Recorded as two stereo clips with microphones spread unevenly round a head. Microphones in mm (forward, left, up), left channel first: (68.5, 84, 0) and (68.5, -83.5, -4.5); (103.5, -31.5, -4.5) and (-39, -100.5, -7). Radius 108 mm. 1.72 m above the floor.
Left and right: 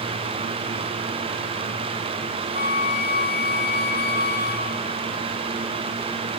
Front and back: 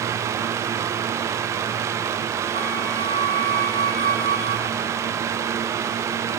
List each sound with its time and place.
2.5 s a flute: 75° left, 3 m